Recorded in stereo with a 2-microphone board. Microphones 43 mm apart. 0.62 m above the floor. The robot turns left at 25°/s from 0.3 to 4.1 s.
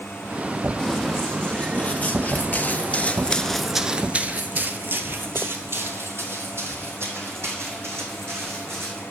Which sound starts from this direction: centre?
Running footsteps, at 0.8 s.